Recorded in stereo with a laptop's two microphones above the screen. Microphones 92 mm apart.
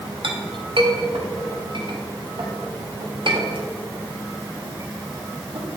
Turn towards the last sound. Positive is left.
turn(degrees=-60)  # may be behind; listen again after turning